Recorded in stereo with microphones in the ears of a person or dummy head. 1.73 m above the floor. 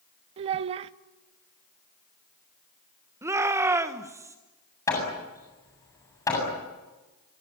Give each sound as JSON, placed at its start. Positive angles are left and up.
{"t": 0.4, "sound": "a child speaking", "side_deg": -35, "distance_m": 0.7}
{"t": 3.2, "sound": "a shout", "side_deg": -15, "distance_m": 1.6}
{"t": 4.9, "sound": "hammering", "side_deg": 15, "distance_m": 8.0}